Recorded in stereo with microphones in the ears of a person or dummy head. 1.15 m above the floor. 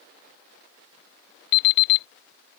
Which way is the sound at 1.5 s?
75° left (ahead or behind).